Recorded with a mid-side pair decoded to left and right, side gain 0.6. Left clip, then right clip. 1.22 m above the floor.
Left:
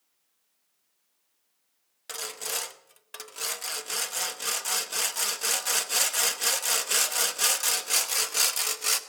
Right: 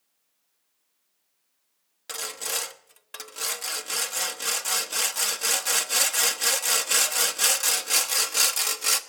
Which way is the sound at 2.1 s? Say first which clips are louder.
Right 2 dB; 10° right.